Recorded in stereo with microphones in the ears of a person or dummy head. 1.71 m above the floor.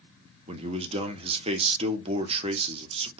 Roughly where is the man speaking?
Right.